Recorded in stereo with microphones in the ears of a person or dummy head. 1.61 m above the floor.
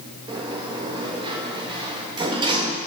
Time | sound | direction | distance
0.3 | a sliding door | 20° right (ahead or behind) | 2.5 m